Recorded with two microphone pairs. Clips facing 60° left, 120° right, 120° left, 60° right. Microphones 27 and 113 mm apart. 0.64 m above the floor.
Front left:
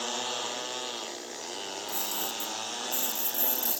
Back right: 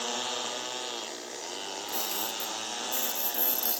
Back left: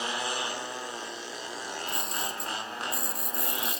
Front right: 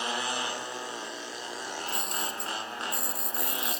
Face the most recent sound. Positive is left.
turn(degrees=-150)